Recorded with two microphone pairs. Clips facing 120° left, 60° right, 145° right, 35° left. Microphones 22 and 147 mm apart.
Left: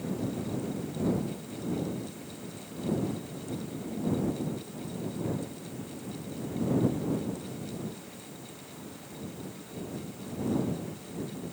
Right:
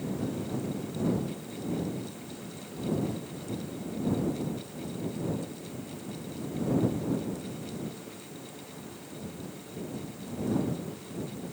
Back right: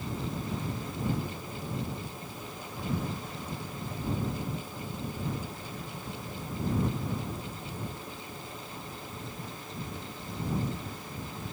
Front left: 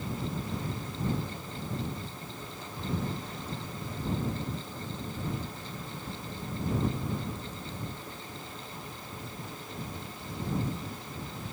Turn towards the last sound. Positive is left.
No sound to turn to.